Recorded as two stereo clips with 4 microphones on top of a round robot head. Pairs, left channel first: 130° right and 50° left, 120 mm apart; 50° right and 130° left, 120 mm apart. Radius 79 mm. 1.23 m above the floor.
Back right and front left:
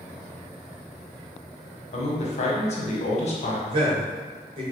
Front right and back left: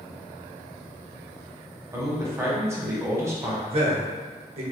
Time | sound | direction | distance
1.9 | a man speaking | 160° right | 1.0 m
3.7 | a man speaking | 95° left | 1.0 m